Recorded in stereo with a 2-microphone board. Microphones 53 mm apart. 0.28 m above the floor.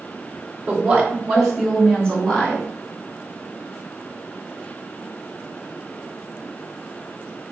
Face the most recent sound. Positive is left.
turn(degrees=30)  # may be behind; listen again after turning